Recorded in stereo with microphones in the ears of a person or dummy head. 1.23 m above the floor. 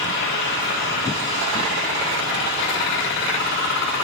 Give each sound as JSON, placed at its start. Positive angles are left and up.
{"t": 0.0, "sound": "a fan", "side_deg": 65, "distance_m": 1.9}